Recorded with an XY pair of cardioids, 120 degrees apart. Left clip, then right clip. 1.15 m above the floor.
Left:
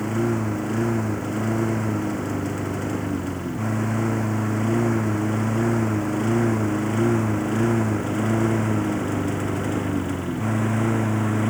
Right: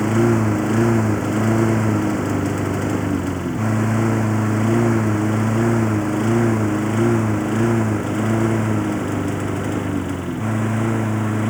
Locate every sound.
0.0 s a lawn mower: 35° right; by 11.5 s 10° right